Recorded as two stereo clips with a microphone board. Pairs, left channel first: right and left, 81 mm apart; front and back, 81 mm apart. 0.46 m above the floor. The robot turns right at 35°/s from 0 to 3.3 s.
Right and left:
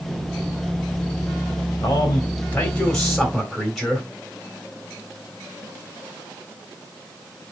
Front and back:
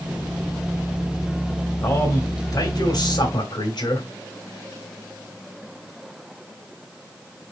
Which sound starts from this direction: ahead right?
A man speaking, at 1.8 s.